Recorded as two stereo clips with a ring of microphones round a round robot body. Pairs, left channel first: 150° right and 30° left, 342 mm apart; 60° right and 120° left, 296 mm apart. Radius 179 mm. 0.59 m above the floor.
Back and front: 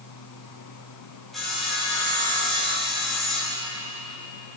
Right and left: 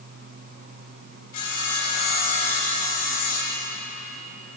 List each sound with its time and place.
1.3 s sawing: 60° right, 3.5 m